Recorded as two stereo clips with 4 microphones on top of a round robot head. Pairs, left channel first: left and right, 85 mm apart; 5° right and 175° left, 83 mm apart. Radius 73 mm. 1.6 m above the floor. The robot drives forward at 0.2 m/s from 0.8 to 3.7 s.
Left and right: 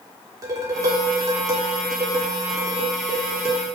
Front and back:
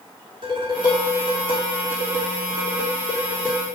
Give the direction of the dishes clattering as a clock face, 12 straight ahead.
5 o'clock.